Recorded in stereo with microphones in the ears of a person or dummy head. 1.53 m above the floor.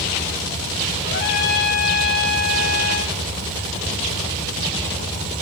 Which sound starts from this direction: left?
A trumpet, at 1.0 s.